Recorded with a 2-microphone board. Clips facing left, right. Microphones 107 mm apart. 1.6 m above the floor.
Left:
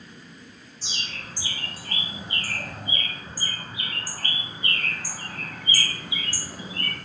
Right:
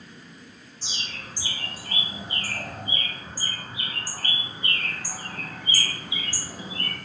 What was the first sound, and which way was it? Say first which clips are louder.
A bird: left 1 dB; 20° right (ahead or behind).